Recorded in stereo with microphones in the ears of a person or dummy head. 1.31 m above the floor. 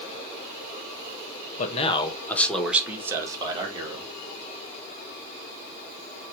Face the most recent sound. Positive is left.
turn(degrees=-25)  # may be behind; listen again after turning